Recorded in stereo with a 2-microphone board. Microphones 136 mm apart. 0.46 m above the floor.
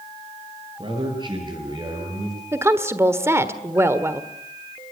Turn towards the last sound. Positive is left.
turn(degrees=-20)  # may be behind; listen again after turning